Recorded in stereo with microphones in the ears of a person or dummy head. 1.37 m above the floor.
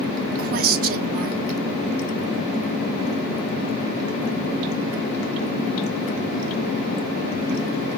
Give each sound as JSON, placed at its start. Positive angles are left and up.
{"t": 0.4, "sound": "a woman speaking", "side_deg": -50, "distance_m": 0.5}